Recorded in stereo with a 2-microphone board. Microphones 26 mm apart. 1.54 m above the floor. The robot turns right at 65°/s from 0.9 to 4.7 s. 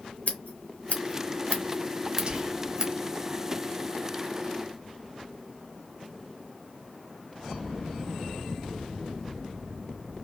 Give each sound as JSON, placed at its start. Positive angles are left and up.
{"t": 0.3, "sound": "scissors", "side_deg": 65, "distance_m": 0.9}
{"t": 2.3, "sound": "whispering", "side_deg": -35, "distance_m": 0.5}